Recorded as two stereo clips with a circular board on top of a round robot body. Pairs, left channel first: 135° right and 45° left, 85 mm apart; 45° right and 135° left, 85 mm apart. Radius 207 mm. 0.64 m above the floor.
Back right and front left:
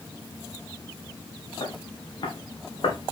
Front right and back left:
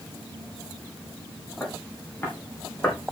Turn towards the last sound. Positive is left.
turn(degrees=-115)